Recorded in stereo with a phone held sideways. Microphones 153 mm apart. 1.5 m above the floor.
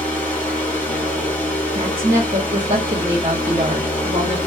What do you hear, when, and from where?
0.0 s a fan: 10° left (ahead or behind), 1.1 m
1.8 s a woman speaking: 40° right (ahead or behind), 0.7 m